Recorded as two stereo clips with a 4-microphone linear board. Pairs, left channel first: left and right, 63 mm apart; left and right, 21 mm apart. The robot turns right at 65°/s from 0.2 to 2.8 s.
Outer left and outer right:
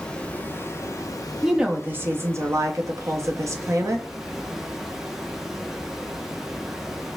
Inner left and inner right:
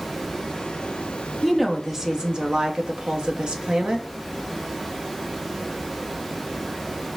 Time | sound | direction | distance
0.0 | running water | 15° left | 0.8 m
1.4 | a woman speaking | 175° right | 0.8 m